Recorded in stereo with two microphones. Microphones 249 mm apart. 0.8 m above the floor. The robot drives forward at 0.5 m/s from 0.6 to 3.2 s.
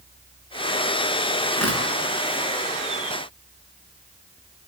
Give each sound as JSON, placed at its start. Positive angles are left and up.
{"t": 1.5, "sound": "tearing paper", "side_deg": 85, "distance_m": 9.0}